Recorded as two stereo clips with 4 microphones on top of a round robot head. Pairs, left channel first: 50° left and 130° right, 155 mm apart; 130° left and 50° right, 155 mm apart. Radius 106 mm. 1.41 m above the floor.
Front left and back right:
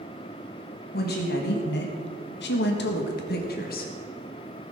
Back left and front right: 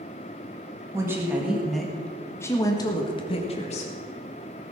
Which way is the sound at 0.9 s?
25° left.